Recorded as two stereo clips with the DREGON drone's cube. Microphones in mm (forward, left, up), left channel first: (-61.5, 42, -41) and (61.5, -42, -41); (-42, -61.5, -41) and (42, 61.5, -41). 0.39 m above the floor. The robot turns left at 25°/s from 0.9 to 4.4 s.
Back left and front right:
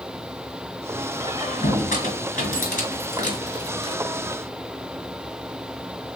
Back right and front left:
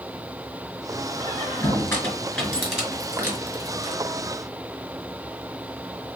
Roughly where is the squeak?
Behind.